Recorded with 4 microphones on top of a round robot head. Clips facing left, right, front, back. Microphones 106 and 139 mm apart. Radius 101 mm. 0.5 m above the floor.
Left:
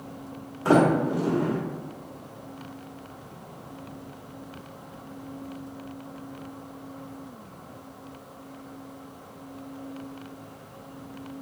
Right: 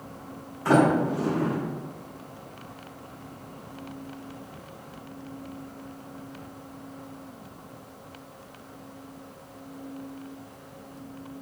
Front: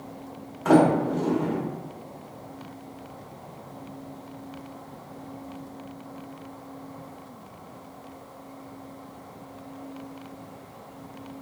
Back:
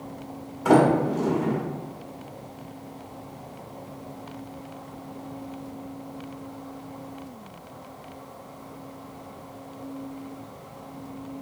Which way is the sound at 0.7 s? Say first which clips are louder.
Left 1 dB, even; 120° left.